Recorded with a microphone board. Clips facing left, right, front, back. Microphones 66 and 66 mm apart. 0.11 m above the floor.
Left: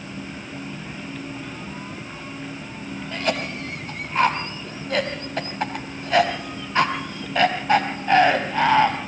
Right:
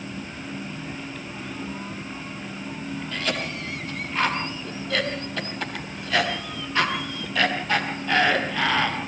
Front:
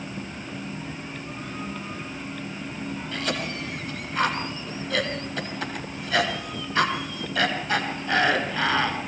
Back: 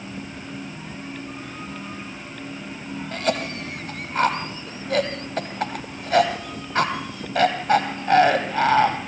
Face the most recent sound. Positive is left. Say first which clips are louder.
# left 5 dB, back 6 dB
turn(degrees=155)